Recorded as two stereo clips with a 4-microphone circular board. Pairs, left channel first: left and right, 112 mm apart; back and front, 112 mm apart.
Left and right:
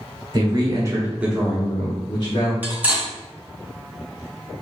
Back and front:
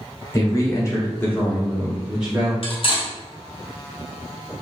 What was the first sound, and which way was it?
A man speaking, 125° right.